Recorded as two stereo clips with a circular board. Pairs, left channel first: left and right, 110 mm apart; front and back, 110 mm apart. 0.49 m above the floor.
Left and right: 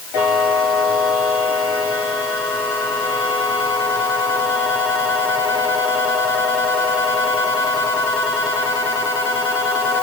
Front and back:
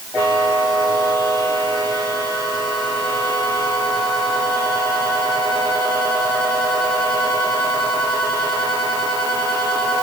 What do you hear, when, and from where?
Only background noise.